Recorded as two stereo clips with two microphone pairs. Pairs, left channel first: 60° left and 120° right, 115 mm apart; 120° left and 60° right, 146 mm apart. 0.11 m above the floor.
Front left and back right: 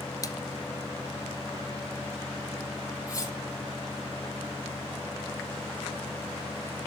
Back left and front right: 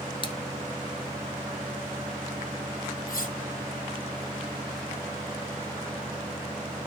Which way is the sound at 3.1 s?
115° left.